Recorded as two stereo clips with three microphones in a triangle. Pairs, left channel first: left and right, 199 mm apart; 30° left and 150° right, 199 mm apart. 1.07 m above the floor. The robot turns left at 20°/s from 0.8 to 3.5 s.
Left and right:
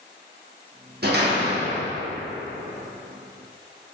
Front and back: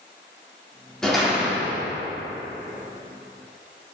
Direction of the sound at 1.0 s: 55° right.